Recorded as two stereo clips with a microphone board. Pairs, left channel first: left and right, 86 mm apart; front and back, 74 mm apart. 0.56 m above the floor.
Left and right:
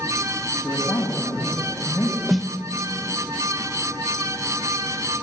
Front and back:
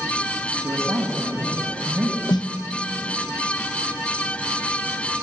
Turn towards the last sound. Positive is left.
turn(degrees=0)